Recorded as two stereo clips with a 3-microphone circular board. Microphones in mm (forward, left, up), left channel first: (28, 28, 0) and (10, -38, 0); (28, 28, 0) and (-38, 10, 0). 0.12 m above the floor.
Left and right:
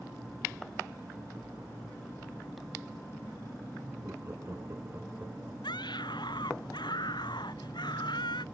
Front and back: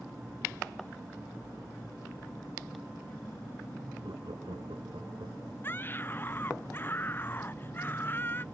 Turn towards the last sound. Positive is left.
turn(degrees=75)